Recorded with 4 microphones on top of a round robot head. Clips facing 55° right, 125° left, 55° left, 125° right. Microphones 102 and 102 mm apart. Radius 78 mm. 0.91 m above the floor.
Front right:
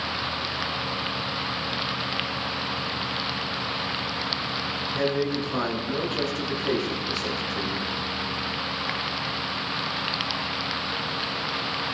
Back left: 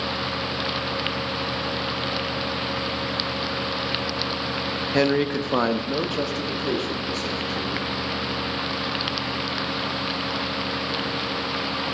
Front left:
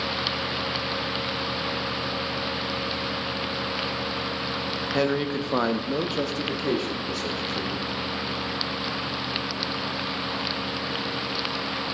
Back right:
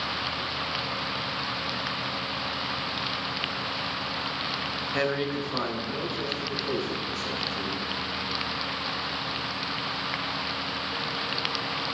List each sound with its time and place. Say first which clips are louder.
4.9 s a man speaking: back left 5 dB, front left 3 dB; 125° left, 0.9 m; by 7.9 s 30° left, 2.5 m